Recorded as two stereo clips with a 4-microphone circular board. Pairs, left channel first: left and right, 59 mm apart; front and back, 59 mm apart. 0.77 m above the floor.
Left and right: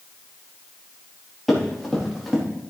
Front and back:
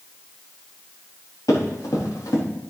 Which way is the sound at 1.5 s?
Straight ahead.